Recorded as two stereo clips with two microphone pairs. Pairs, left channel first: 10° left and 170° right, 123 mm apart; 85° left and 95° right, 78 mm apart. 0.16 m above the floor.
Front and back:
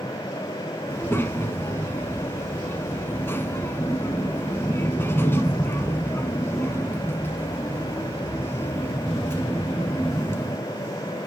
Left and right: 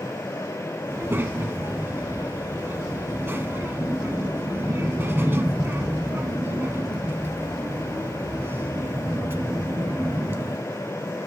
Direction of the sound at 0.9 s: 50° right.